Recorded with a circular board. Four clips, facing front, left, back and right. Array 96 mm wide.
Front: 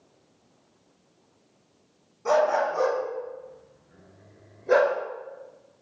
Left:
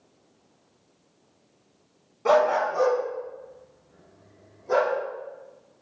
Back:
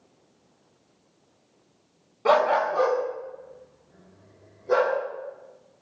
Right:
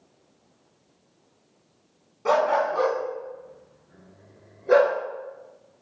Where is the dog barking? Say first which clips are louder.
Left 1 dB, back 2 dB; 175° left, 0.6 m; by 5.0 s 50° right, 1.3 m.